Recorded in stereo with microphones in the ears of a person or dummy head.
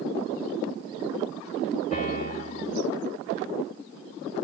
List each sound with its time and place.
1.9 s a piano: 40° left (ahead or behind), 7.5 m